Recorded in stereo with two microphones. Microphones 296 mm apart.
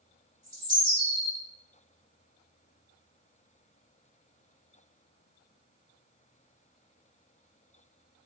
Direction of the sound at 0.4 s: 30° left (ahead or behind).